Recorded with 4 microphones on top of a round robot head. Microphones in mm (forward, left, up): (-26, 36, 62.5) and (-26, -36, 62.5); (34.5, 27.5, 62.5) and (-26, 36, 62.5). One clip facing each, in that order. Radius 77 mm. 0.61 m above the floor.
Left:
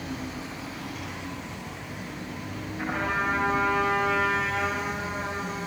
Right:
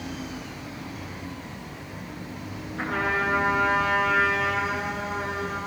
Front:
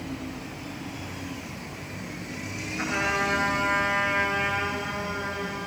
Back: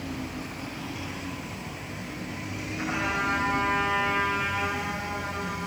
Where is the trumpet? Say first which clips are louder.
Right 2 dB, front 2 dB; 80° right, 8.5 m.